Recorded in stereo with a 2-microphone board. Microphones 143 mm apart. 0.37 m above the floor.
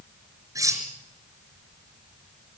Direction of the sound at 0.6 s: 20° right (ahead or behind).